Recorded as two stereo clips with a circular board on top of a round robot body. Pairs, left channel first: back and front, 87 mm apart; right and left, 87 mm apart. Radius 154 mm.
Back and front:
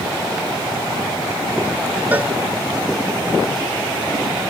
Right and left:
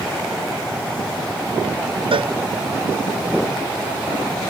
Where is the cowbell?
70° left.